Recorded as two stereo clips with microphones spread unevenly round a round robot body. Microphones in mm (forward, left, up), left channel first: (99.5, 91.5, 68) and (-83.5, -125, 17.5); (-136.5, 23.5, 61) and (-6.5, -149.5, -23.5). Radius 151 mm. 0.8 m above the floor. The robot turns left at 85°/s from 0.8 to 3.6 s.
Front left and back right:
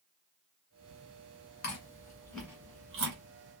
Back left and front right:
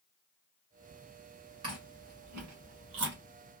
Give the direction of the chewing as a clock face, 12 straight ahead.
11 o'clock.